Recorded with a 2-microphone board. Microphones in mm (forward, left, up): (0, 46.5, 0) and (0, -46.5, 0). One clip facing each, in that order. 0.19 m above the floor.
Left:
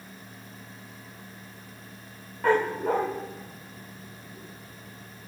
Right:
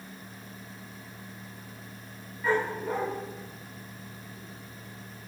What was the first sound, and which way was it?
A dog barking, 65° left (ahead or behind).